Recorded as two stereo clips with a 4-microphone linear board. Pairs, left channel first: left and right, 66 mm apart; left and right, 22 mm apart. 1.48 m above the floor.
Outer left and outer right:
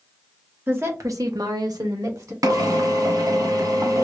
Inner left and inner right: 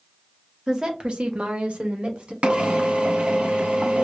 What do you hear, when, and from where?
0.7 s a woman speaking: 35° right (ahead or behind), 1.1 m; by 2.3 s 55° right (ahead or behind), 1.4 m
2.4 s a drill: 60° right (ahead or behind), 0.9 m